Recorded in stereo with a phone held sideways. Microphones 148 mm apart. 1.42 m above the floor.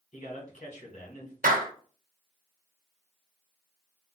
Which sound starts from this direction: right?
A clap, at 1.4 s.